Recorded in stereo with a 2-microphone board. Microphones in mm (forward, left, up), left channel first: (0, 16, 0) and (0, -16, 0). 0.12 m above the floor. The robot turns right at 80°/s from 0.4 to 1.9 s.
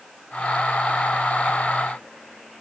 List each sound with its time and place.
Only background noise.